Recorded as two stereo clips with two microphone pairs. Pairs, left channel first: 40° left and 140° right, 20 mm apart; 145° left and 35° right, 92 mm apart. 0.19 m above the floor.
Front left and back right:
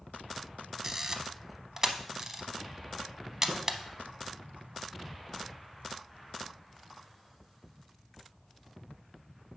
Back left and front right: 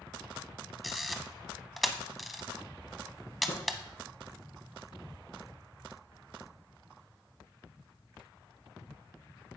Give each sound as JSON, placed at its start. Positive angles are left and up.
{"t": 0.8, "sound": "a camera shutter", "azimuth_deg": -130, "distance_m": 0.6}
{"t": 3.5, "sound": "tapping", "azimuth_deg": 125, "distance_m": 2.5}